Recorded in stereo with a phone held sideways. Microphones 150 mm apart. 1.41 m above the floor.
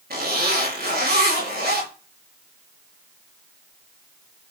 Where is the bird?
I don't hear a bird.